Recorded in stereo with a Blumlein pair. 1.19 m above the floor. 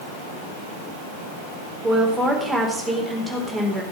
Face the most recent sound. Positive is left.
turn(degrees=-5)